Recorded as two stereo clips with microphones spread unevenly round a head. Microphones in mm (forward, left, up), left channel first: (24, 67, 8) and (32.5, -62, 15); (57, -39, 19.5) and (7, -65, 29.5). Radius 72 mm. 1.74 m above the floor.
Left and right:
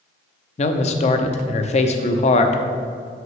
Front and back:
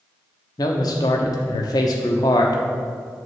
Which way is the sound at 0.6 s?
60° left.